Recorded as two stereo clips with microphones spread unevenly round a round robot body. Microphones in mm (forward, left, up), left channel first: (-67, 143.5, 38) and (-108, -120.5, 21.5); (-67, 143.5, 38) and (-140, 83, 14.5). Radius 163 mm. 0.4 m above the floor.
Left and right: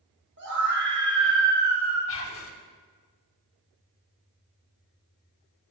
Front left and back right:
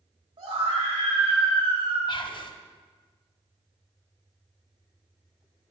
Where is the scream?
140° right, 3.5 m.